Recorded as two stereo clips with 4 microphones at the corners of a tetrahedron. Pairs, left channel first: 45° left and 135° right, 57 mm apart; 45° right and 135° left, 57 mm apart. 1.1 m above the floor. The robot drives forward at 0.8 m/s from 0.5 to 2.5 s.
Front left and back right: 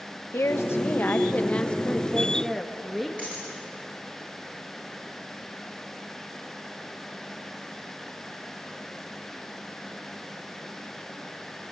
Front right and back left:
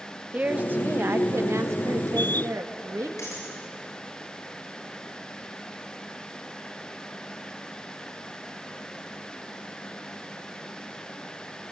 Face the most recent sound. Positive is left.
turn(degrees=-75)